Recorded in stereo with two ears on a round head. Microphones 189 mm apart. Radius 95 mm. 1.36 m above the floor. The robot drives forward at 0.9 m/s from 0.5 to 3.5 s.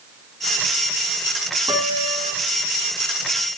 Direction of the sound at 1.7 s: 15° right (ahead or behind).